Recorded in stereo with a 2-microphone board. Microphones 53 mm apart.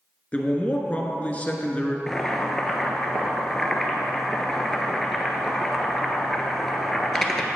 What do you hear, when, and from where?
0.3 s a man speaking: 25° left (ahead or behind), 1.2 m
2.1 s boiling: 5° left (ahead or behind), 1.1 m